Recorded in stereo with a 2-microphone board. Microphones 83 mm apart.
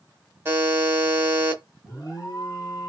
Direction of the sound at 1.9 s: 50° left (ahead or behind).